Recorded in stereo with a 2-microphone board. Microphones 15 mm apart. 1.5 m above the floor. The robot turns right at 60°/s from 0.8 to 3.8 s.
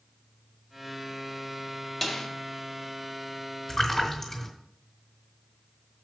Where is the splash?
30° left (ahead or behind), 2.5 m; by 4.5 s 35° left (ahead or behind), 2.5 m.